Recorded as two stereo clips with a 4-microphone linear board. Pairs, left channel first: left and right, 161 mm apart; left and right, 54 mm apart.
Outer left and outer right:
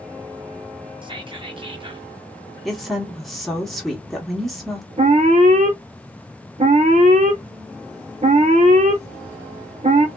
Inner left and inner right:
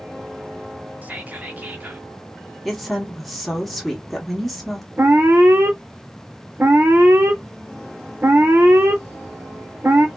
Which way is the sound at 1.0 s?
30° right (ahead or behind).